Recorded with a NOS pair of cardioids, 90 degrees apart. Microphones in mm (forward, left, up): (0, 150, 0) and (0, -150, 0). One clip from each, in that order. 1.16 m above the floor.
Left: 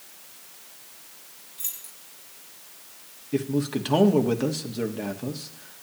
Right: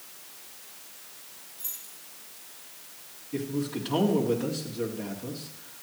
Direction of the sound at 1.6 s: 65° left.